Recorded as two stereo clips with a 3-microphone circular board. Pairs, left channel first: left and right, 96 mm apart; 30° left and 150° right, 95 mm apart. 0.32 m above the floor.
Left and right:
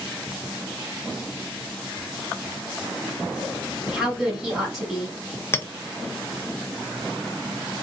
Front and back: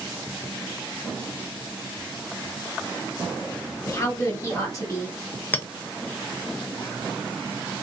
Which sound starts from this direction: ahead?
A woman speaking, at 3.9 s.